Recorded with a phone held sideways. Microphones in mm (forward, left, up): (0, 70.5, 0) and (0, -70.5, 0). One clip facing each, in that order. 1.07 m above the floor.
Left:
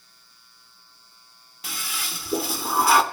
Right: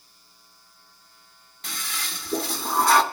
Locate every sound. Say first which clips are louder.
1.6 s a toilet flushing: left 1 dB; 5° left (ahead or behind), 1.2 m